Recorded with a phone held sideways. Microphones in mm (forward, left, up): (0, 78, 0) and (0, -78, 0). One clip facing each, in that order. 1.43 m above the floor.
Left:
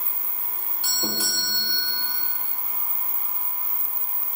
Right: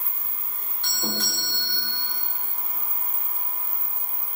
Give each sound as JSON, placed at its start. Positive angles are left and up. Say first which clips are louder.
{"t": 0.8, "sound": "a doorbell", "louder": "even", "side_deg": 10, "distance_m": 3.5}